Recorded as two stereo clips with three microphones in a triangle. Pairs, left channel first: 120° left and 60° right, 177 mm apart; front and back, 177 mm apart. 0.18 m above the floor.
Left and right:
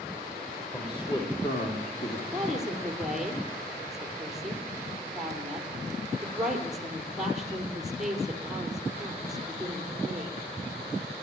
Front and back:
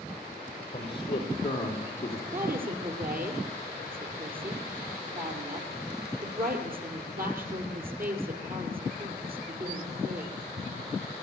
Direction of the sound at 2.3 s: 150° right.